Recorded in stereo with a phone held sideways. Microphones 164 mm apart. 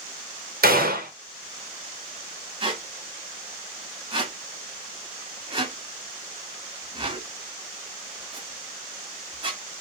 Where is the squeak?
30° right (ahead or behind), 1.5 m.